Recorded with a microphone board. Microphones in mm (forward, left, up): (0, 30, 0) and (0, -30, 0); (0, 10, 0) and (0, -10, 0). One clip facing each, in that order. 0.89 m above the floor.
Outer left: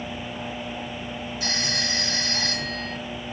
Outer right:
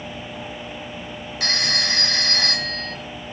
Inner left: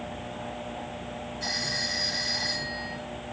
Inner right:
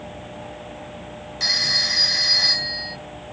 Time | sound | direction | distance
1.4 | a phone ringing | 70° right (ahead or behind) | 2.5 m